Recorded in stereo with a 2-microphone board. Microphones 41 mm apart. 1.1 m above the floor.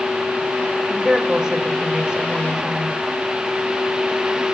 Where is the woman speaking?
10° right (ahead or behind), 5 m; by 3.0 s 25° right (ahead or behind), 4.5 m.